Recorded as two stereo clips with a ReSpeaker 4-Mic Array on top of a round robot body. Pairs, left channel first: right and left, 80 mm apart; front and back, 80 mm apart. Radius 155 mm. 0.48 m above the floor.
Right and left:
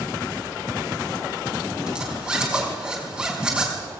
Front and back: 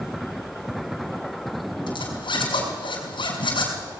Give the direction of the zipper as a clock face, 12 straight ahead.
12 o'clock.